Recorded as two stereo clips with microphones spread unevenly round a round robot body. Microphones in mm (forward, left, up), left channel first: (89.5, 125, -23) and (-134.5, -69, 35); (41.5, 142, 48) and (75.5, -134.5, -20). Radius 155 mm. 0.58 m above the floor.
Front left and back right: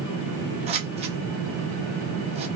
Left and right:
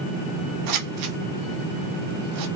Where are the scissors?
70° right, 1.0 m.